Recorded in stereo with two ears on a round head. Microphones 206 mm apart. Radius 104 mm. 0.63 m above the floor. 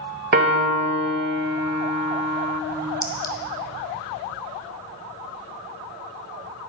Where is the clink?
20° left (ahead or behind), 2.5 m.